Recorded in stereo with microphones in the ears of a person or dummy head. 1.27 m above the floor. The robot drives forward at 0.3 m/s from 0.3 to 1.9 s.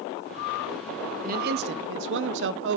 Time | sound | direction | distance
1.2 | a man speaking | 50° right (ahead or behind) | 0.6 m